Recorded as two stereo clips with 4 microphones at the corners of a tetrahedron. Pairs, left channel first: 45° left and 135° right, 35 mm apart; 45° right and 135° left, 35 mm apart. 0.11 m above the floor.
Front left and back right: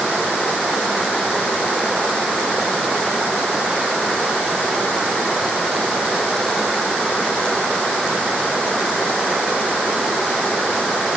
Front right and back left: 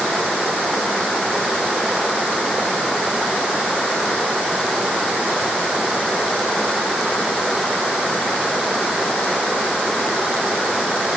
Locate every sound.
Only background noise.